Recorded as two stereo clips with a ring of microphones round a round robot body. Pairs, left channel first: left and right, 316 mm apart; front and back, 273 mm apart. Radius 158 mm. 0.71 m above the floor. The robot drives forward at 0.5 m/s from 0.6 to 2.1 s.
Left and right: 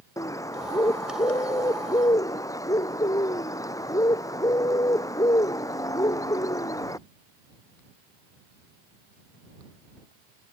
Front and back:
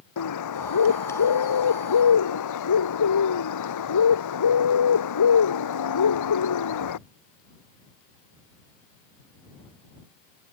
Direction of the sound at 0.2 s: 10° left.